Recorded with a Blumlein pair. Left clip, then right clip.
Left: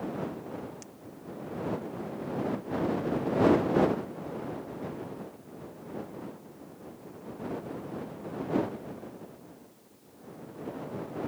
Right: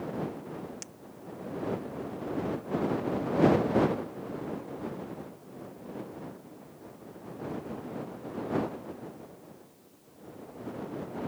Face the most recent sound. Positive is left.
turn(degrees=-25)